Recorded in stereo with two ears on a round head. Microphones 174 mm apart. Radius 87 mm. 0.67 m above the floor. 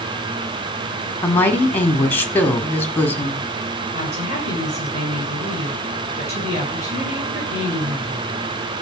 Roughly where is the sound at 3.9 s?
Right.